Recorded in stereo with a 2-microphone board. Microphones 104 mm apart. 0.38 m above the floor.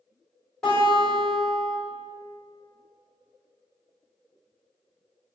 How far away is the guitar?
About 1.7 m.